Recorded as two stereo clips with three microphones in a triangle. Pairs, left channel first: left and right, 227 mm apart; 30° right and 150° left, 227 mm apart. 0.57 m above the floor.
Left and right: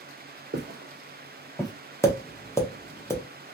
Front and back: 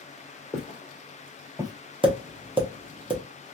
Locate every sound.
0.5 s footsteps: 95° right, 0.9 m; by 1.7 s 110° left, 0.6 m
2.0 s tapping: 145° left, 0.8 m